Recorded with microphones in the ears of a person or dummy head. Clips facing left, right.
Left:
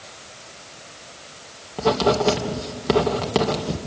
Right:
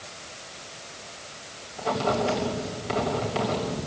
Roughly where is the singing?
No singing in this recording.